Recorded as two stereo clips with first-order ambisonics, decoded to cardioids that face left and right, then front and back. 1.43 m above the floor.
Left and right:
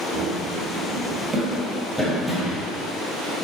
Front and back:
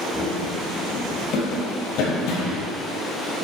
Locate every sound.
0.1 s running footsteps: 80° right, 2 m; by 2.7 s 10° left, 2.5 m